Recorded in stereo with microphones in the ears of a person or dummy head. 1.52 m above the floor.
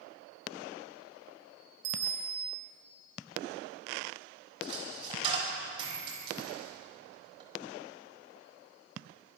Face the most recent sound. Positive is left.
turn(degrees=-30)  # may be behind; listen again after turning